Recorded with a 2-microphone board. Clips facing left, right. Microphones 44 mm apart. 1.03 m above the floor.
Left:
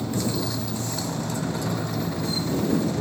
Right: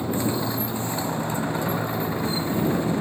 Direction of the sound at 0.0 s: 20° right (ahead or behind).